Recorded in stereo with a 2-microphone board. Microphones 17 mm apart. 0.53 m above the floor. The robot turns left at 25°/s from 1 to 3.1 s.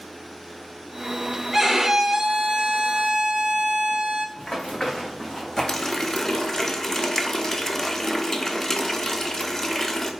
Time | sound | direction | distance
1.5 | a violin | 10° right | 0.7 m
4.4 | running footsteps | 30° left (ahead or behind) | 2.5 m
5.7 | a running tap | 25° left (ahead or behind) | 0.6 m